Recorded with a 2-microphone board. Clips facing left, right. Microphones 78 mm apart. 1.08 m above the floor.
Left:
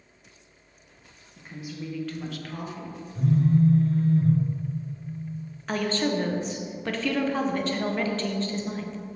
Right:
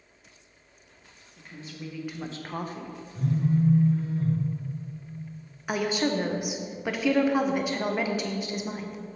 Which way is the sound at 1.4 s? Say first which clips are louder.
Left 4 dB; 25° left (ahead or behind).